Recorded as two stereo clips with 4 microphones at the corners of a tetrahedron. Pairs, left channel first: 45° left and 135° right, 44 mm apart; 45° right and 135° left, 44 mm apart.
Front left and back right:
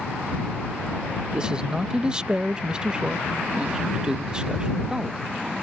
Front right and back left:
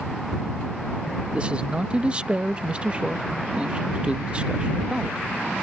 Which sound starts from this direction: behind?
A man speaking, at 1.3 s.